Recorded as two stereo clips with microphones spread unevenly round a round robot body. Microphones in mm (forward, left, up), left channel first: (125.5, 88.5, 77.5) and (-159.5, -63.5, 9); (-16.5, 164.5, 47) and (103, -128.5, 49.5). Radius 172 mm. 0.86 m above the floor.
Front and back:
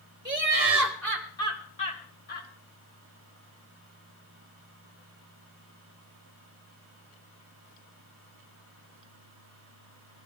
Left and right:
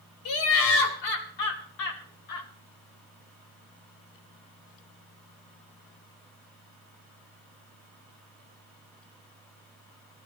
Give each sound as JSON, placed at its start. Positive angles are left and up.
{"t": 0.2, "sound": "laughter", "azimuth_deg": 140, "distance_m": 3.0}